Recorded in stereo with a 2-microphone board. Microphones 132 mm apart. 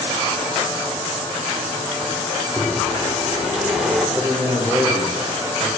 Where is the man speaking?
15° right (ahead or behind), 0.9 m.